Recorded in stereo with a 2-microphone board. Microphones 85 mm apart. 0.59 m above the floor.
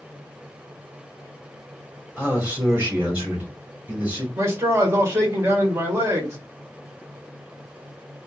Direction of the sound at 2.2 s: 20° right (ahead or behind).